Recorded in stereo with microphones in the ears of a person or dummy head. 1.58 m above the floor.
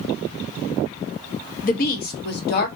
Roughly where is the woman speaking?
Left.